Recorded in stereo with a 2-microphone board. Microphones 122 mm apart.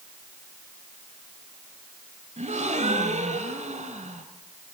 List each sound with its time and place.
2.4 s a gasp: 80° right, 1.4 m